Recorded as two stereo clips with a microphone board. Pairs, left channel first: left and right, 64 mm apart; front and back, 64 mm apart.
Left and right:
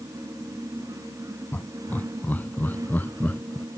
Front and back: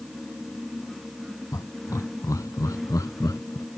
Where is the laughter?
30° left; by 3.6 s 25° left.